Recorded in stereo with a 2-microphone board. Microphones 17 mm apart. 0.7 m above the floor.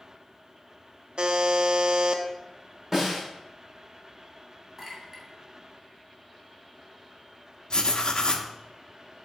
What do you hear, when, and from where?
1.2 s a buzzer: 55° right (ahead or behind), 0.7 m
2.9 s a snare drum: 25° right (ahead or behind), 2.5 m
4.8 s a clink: 15° right (ahead or behind), 2.5 m
7.7 s writing: 45° left (ahead or behind), 0.7 m